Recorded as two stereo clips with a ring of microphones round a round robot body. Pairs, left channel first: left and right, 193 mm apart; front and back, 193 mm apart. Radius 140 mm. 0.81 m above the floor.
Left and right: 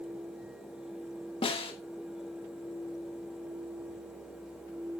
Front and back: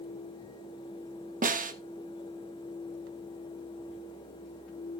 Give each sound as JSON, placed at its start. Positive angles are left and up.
{"t": 1.4, "sound": "a snare drum", "azimuth_deg": 150, "distance_m": 1.2}